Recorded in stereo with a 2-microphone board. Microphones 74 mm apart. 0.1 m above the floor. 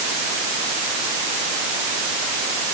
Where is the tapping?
No tapping in this recording.